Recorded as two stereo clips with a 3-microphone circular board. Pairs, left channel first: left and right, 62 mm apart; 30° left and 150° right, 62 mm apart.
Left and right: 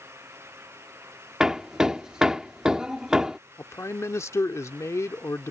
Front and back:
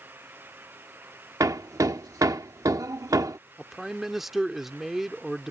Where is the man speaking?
125° left.